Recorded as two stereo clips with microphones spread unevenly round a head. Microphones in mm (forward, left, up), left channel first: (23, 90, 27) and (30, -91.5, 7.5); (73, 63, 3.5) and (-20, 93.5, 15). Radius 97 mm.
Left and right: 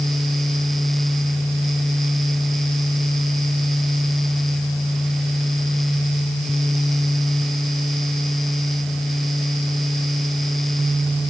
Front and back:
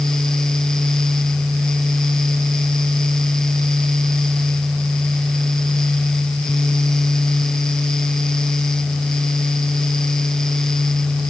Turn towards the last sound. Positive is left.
No sound to turn to.